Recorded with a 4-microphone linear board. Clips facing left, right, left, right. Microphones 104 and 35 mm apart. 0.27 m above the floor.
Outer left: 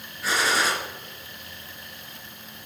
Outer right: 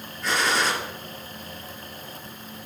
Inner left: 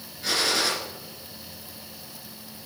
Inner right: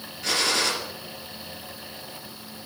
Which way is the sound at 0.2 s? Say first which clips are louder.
Even, inner right 1 dB; 5° left (ahead or behind).